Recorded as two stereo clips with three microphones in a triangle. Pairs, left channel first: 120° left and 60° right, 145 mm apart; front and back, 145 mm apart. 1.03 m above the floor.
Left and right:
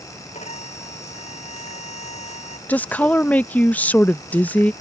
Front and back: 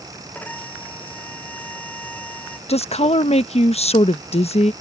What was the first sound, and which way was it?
A violin, 80° left.